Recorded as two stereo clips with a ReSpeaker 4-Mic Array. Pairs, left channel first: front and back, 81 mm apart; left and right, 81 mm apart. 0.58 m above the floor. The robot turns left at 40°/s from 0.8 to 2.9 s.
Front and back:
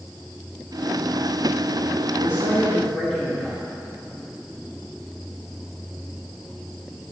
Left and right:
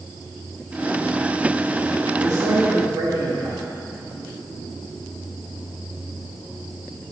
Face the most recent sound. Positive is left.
turn(degrees=-80)